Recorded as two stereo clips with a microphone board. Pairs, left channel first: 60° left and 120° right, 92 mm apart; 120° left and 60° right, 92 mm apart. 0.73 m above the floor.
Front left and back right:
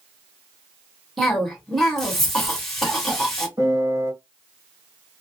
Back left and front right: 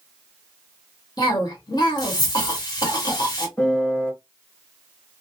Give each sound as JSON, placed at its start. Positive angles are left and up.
{"t": 1.2, "sound": "a cough", "azimuth_deg": 145, "distance_m": 1.6}
{"t": 3.6, "sound": "a piano", "azimuth_deg": -165, "distance_m": 1.6}